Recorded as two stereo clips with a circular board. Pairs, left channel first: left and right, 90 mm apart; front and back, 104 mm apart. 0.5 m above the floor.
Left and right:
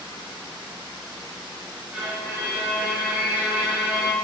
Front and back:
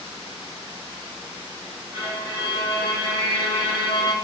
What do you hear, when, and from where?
1.9 s a violin: 160° right, 1.0 m